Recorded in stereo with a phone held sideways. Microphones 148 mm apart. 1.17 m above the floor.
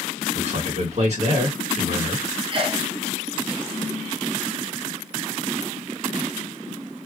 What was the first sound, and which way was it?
A man speaking, 50° right (ahead or behind).